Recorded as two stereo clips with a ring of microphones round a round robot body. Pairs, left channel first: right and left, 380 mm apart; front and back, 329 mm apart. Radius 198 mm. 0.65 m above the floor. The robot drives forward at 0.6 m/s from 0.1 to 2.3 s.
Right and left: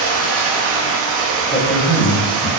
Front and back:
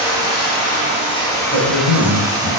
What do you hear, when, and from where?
0.0 s running water: 55° left, 1.8 m; by 2.6 s 100° left, 1.5 m
1.5 s a man speaking: 15° right, 1.1 m; by 2.5 s 35° right, 0.9 m